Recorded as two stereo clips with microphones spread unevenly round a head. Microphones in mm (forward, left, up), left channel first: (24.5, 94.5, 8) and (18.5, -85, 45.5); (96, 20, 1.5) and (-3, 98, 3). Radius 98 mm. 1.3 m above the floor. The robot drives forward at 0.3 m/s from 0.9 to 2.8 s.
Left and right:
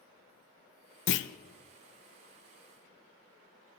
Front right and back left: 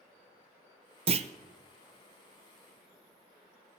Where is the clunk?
95° left, 0.6 m; by 1.3 s 105° left, 0.6 m.